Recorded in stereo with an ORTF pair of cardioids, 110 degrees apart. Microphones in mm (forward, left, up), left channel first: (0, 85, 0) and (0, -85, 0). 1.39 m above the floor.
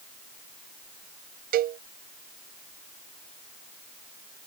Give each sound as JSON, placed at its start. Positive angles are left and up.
{"t": 1.5, "sound": "a cowbell", "azimuth_deg": -65}